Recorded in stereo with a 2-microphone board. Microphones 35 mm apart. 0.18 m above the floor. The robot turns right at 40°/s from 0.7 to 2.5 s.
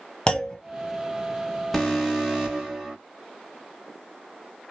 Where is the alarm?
170° left, 1.7 m; by 3.0 s 160° right, 1.7 m.